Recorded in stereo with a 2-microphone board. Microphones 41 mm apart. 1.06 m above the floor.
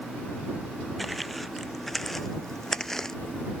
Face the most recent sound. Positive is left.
turn(degrees=15)  # may be behind; listen again after turning